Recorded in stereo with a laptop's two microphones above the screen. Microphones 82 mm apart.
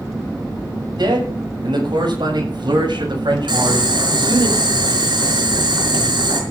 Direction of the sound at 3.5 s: 75° right (ahead or behind).